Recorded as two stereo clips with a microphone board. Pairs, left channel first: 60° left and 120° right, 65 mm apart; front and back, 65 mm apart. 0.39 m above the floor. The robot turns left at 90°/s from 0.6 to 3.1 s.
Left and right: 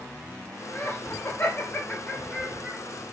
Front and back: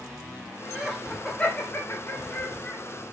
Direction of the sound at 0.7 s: 120° left.